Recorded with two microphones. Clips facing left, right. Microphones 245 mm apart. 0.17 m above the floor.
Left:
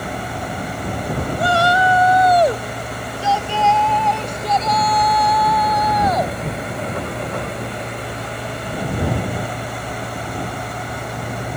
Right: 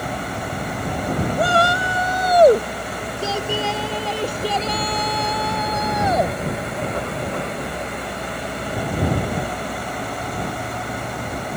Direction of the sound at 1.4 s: 55° right (ahead or behind).